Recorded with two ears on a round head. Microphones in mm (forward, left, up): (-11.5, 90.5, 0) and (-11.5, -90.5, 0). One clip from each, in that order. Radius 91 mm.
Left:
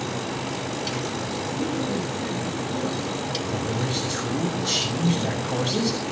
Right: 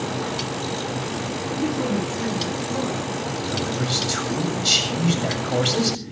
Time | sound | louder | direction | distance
1.6 | a woman speaking | right 4 dB | 40° right (ahead or behind) | 9.5 m
3.4 | a man speaking | right 2 dB | 70° right (ahead or behind) | 7 m